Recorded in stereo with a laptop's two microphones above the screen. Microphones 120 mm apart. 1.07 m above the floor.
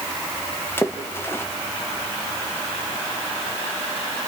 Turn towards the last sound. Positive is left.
turn(degrees=20)  # may be behind; listen again after turning